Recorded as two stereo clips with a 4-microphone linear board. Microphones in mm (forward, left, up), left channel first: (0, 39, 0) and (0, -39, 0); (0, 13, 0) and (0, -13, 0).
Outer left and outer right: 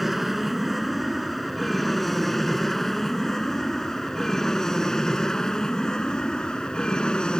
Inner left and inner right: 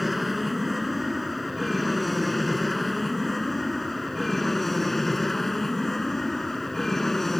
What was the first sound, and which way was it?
An aircraft, centre (ahead or behind).